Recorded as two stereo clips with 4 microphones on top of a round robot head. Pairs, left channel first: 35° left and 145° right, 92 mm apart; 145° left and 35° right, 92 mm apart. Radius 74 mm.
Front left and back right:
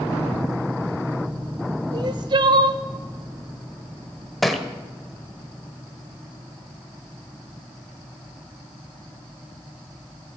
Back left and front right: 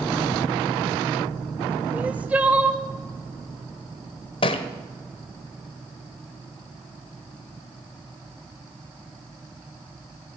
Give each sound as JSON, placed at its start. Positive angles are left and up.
{"t": 1.9, "sound": "crying", "azimuth_deg": -110, "distance_m": 1.2}
{"t": 4.4, "sound": "a thud", "azimuth_deg": 120, "distance_m": 1.2}